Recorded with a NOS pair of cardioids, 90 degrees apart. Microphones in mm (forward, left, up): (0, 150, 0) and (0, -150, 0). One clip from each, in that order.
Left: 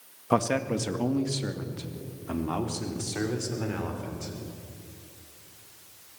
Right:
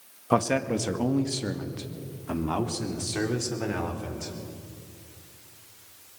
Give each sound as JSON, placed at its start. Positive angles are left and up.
{"t": 0.3, "sound": "a man speaking", "azimuth_deg": -5, "distance_m": 1.9}